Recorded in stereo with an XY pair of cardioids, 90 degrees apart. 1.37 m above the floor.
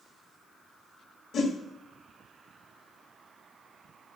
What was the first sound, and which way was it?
A whoosh, 65° left.